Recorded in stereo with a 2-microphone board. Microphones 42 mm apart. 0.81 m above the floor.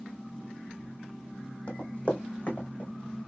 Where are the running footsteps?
35° left (ahead or behind), 1.6 m; by 2.9 s 45° left (ahead or behind), 2.5 m.